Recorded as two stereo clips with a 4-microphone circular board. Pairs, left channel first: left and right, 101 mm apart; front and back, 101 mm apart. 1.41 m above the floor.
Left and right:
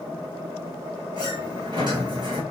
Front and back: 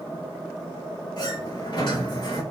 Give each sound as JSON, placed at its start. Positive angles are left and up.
{"t": 1.2, "sound": "a sliding door", "azimuth_deg": -45, "distance_m": 2.0}